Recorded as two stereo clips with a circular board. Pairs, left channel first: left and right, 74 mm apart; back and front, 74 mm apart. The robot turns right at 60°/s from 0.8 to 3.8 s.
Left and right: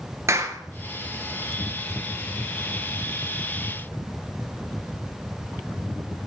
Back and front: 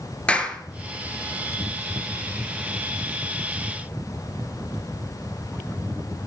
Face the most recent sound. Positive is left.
turn(degrees=65)